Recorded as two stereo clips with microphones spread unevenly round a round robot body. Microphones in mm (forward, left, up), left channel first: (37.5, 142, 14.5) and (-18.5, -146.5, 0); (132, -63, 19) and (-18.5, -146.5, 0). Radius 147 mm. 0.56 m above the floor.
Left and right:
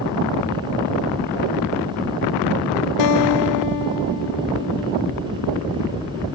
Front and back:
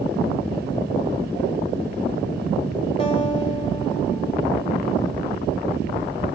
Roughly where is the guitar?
Left.